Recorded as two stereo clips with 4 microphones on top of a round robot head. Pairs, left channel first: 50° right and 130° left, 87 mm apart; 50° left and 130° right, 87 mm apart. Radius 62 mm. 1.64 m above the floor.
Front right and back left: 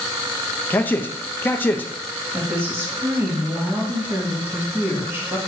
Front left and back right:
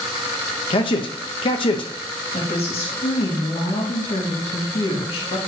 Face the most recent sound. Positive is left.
turn(degrees=65)